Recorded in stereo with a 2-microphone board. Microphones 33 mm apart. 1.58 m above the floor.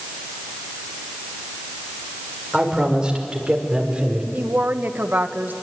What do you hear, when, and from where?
2.5 s a man speaking: 20° right (ahead or behind), 5.5 m; by 4.2 s 30° right (ahead or behind), 4.5 m
4.3 s a woman speaking: 75° right (ahead or behind), 1.4 m